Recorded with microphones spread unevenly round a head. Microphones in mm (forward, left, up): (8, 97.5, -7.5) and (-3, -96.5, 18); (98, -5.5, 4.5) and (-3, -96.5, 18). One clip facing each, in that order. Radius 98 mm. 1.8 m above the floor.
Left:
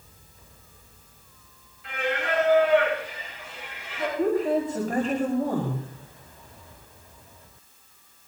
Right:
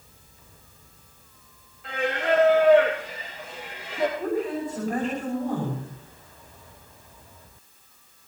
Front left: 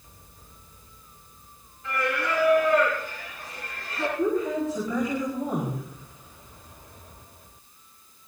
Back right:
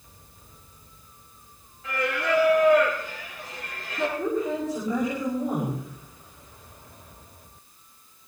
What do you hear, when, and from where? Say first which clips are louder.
1.8 s singing: right 3 dB, back right 1 dB; 145° right, 6.5 m
4.2 s a woman speaking: left 4 dB, front left 5 dB; 140° left, 5 m